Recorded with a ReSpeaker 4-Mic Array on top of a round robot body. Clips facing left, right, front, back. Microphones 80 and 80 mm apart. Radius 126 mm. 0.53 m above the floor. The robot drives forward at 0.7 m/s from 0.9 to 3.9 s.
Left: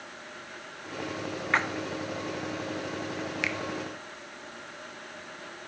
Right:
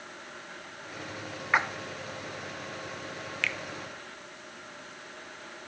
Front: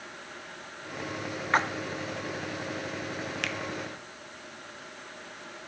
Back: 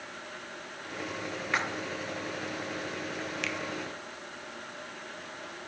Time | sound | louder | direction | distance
1.5 | a splash | right 1 dB, front 6 dB | 20° right | 1.5 m
3.4 | a finger snap | right 1 dB, front 1 dB | 20° left | 1.4 m